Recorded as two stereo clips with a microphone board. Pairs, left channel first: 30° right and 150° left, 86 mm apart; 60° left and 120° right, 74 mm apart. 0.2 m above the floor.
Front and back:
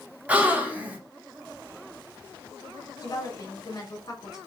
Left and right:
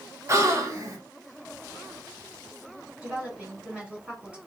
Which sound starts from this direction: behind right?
A gasp, at 0.3 s.